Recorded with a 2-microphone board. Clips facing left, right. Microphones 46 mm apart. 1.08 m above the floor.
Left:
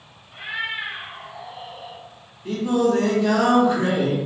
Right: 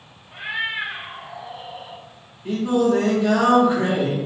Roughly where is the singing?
Centre.